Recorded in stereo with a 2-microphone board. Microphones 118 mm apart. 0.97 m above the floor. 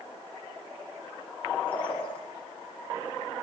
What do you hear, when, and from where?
1.7 s a bird: 50° left (ahead or behind), 8 m